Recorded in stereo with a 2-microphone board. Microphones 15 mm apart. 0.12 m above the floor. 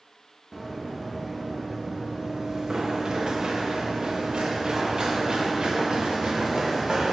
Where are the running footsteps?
15° right (ahead or behind), 2.5 m; by 7.1 s 65° right (ahead or behind), 2.5 m.